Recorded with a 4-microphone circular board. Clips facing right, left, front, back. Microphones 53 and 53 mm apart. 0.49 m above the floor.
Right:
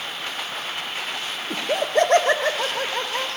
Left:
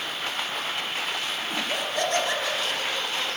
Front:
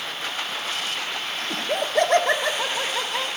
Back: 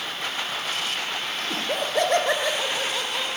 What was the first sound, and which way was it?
Laughter, 85° right.